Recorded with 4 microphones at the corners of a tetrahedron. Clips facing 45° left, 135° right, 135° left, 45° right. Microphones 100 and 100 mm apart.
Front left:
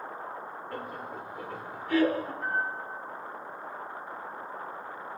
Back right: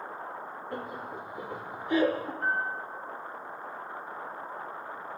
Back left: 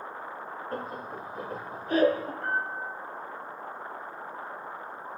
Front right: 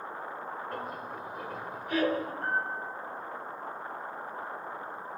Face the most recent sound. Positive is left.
turn(degrees=-90)